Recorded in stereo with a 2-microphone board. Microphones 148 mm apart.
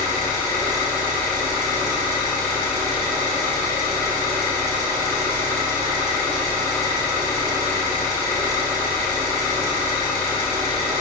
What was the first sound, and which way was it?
An engine running, 20° left (ahead or behind).